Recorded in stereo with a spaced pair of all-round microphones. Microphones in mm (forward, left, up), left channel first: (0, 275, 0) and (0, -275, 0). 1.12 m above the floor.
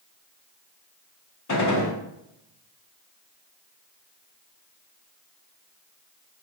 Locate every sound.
1.5 s a gunshot: 30° left (ahead or behind), 0.5 m